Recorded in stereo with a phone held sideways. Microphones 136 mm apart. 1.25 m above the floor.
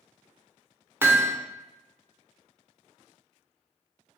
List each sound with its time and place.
1.0 s hammering: 15° right (ahead or behind), 0.6 m